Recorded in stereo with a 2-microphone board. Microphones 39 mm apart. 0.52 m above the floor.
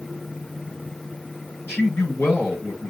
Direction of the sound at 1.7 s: 80° left.